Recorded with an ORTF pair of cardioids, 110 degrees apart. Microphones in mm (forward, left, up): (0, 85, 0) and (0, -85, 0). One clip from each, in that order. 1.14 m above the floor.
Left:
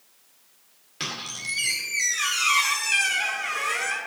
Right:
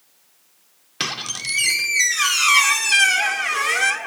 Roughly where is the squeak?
Ahead right.